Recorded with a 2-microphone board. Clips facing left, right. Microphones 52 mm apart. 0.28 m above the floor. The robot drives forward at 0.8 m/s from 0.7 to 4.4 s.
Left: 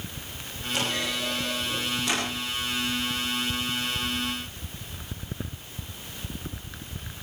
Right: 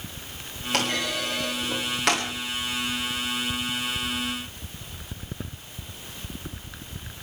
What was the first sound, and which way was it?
A clunk, 80° right.